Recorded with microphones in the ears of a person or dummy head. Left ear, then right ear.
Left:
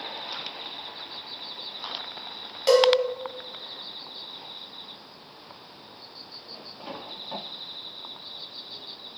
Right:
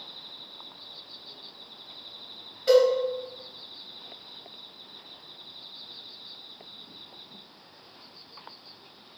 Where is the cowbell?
50° left (ahead or behind), 1.6 m.